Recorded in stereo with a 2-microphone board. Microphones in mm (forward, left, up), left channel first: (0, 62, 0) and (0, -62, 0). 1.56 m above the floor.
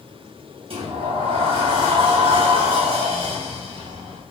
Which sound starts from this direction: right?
A sliding door, at 0.7 s.